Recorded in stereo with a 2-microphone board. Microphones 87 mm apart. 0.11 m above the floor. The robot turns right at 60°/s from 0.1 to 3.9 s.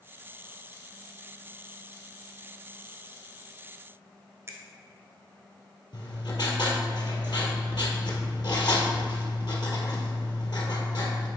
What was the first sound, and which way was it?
A finger snap, 35° right (ahead or behind).